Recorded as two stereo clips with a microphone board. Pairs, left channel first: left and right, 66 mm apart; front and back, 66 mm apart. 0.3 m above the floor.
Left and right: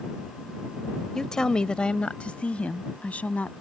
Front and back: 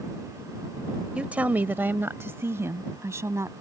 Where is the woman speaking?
155° left; by 3.5 s 150° left.